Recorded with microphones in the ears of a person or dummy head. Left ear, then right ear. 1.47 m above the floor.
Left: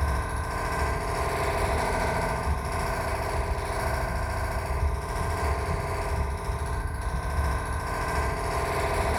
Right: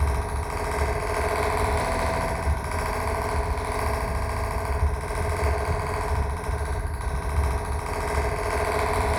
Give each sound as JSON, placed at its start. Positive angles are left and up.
{"t": 0.0, "sound": "a fan", "side_deg": -35, "distance_m": 1.3}